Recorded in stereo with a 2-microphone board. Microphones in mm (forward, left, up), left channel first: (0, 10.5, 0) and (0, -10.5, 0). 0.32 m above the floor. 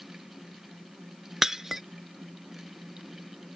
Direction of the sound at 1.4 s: 20° right (ahead or behind).